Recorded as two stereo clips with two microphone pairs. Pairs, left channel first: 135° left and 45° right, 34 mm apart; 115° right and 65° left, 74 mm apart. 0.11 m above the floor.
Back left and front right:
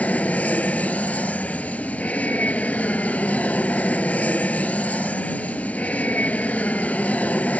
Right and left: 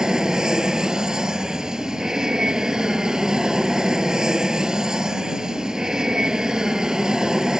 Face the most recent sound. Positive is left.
turn(degrees=145)